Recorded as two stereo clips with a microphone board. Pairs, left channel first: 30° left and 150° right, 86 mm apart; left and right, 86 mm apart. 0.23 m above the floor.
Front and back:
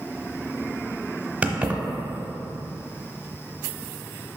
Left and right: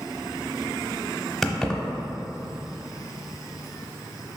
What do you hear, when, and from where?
1.4 s keys jangling: 170° left, 0.8 m